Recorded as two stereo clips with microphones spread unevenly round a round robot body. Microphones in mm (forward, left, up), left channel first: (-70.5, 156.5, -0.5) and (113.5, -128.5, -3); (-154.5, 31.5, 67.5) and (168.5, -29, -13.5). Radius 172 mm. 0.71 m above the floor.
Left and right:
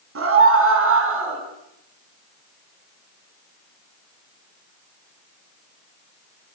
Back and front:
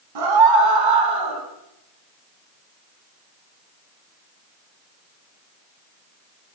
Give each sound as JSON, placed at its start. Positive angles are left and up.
{"t": 0.1, "sound": "a scream", "azimuth_deg": -5, "distance_m": 5.5}